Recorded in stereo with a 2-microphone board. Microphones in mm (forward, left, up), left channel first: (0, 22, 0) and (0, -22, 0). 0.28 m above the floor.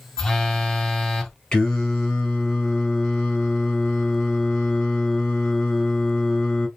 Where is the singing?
15° left (ahead or behind), 1.8 m.